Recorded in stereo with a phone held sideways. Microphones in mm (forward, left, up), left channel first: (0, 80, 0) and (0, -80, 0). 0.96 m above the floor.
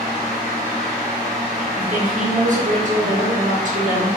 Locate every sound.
0.0 s a fan: 50° right (ahead or behind), 1.1 m
1.8 s a woman speaking: 50° right (ahead or behind), 0.9 m